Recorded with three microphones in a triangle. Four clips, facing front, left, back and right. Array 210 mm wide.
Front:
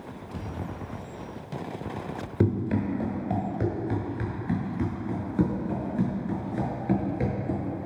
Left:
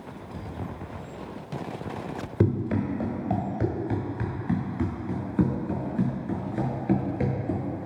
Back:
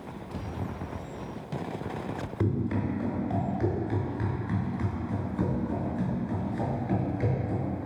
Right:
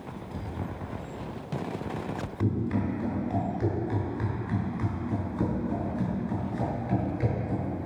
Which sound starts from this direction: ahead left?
Running footsteps, at 2.4 s.